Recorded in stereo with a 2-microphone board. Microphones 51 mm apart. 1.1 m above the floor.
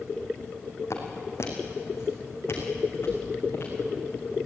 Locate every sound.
0.9 s footsteps: 60° left (ahead or behind), 3.5 m; by 4.3 s 45° left (ahead or behind), 5.5 m